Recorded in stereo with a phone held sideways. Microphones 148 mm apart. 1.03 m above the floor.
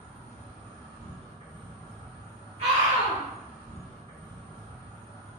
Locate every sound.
0.0 s an insect: 25° left (ahead or behind), 1.4 m
2.6 s a scream: 40° right (ahead or behind), 0.7 m